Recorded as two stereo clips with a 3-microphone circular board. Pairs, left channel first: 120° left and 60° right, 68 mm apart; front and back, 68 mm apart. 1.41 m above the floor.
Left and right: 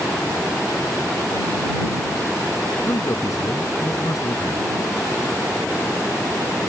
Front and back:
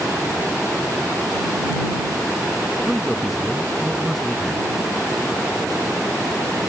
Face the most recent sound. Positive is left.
turn(degrees=90)